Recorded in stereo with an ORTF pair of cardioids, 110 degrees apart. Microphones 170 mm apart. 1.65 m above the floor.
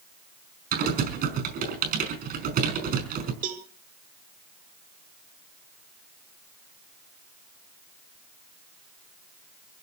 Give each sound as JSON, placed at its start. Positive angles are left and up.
{"t": 0.7, "sound": "typing on a keyboard", "azimuth_deg": -70, "distance_m": 5.0}
{"t": 3.4, "sound": "a cowbell", "azimuth_deg": -55, "distance_m": 2.0}